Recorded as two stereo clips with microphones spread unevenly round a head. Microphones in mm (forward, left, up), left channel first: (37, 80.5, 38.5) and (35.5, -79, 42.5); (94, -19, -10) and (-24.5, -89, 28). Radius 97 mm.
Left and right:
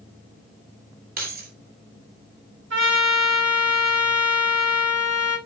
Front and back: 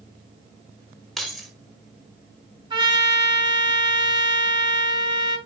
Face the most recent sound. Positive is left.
turn(degrees=-95)